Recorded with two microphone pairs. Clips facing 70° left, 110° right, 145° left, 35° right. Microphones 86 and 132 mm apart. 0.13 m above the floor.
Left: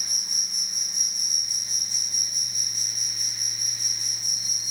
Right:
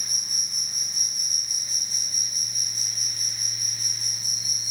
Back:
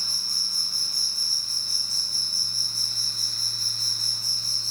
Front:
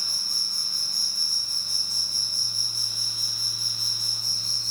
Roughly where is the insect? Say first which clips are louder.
Even, even; right.